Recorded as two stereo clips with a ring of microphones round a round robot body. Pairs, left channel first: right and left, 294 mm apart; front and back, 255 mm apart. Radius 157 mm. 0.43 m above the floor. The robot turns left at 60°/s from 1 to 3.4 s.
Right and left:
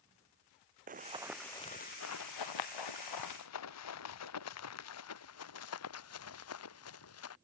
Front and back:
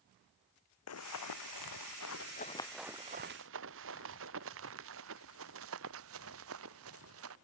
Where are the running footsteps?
25° left; by 7.3 s 135° right.